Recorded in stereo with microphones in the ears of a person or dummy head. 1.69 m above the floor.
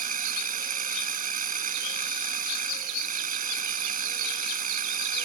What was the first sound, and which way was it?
A machine running, 40° right (ahead or behind).